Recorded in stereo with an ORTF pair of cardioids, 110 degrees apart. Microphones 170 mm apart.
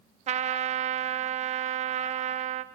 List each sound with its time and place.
0.3 s a trumpet: 45° right, 0.6 m